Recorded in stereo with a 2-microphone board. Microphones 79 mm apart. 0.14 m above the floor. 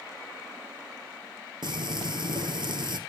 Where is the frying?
65° right (ahead or behind), 4 m.